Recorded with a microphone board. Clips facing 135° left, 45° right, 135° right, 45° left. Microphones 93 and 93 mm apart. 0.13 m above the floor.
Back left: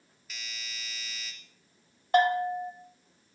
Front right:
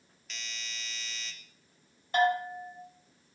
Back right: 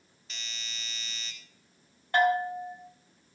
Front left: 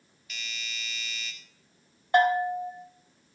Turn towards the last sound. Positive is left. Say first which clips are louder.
# back left 3 dB, front left 3 dB
turn(degrees=115)